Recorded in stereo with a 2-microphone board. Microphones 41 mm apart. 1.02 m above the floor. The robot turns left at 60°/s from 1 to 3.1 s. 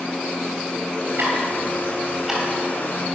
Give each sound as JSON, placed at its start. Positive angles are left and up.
{"t": 1.2, "sound": "ticking", "side_deg": -70, "distance_m": 4.0}